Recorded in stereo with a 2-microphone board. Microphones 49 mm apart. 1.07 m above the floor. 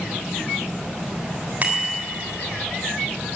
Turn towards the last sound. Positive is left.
turn(degrees=-35)  # may be behind; listen again after turning